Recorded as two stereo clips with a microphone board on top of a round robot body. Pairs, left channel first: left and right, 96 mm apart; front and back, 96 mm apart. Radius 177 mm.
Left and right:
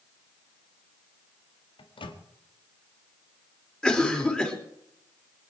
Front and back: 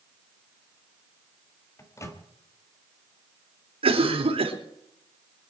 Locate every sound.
1.8 s a microwave: 60° left, 1.9 m
3.8 s a cough: 170° left, 4 m